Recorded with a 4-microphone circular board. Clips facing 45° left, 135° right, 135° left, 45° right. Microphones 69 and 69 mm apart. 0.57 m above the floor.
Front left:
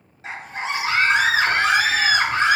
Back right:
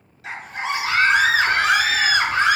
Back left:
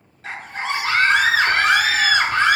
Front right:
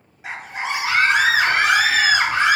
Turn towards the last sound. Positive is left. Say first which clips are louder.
# back right 1 dB, even
turn(degrees=15)